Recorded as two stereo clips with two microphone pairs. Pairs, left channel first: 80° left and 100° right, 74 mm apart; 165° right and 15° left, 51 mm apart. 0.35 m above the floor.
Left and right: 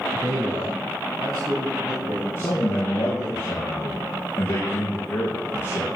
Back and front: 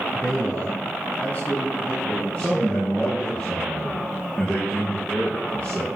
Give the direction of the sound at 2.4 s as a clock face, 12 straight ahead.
8 o'clock.